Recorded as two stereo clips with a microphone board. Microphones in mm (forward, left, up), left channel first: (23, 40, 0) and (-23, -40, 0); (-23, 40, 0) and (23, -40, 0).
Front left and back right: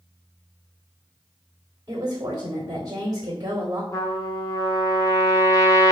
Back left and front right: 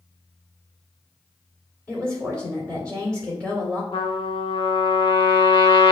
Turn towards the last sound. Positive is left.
turn(degrees=110)